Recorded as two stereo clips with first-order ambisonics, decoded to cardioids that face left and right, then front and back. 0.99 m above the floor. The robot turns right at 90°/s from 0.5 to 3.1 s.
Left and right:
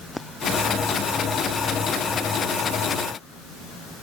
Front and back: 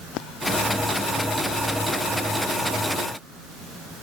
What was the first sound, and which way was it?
Only background noise.